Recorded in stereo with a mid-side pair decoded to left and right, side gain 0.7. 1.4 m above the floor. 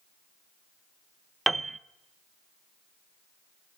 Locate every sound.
1.5 s a piano: 15° right, 0.9 m